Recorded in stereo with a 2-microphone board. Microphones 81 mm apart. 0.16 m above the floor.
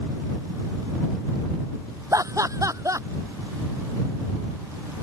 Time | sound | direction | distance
2.1 | laughter | 40° right (ahead or behind) | ?